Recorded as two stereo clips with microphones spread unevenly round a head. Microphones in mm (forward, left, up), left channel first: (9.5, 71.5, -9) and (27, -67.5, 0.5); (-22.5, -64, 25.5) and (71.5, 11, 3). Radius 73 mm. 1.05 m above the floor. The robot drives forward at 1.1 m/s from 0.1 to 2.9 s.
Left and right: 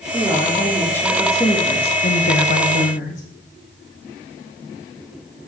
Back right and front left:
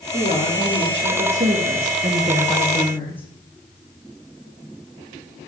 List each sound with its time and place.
0.1 s a woman speaking: 15° left, 2.5 m; by 3.2 s 140° left, 0.9 m